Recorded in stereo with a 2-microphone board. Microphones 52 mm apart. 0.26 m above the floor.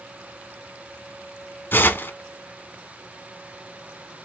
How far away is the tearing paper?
About 0.5 m.